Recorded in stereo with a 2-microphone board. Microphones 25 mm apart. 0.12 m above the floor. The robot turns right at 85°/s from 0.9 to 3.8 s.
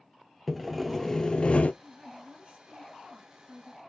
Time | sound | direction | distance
0.5 | sawing | 5° right | 0.5 m
1.8 | a woman speaking | 170° right | 2 m